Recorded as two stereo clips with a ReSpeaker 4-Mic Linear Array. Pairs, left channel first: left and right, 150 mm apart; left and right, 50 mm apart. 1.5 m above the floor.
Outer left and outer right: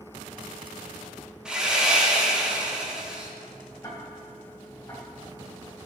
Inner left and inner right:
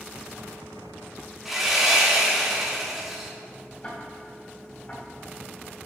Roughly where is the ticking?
Left.